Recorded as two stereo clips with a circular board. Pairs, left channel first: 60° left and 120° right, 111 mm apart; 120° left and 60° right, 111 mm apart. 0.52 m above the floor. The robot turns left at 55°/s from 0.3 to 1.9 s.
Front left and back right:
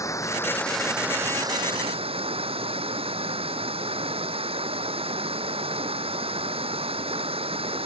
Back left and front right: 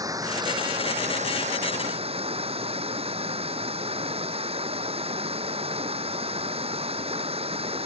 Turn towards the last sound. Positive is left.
turn(degrees=-90)